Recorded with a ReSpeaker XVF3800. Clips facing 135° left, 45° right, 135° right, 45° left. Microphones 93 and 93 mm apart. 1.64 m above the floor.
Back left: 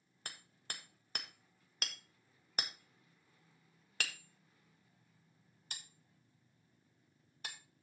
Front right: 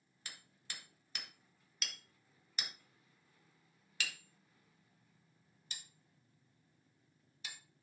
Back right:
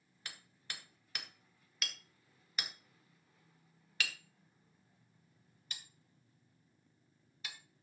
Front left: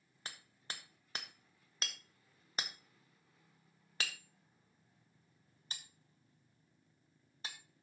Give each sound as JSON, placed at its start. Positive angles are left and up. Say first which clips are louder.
{"t": 0.2, "sound": "hammering", "louder": "back left 3 dB, front left 1 dB", "azimuth_deg": 100, "distance_m": 1.4}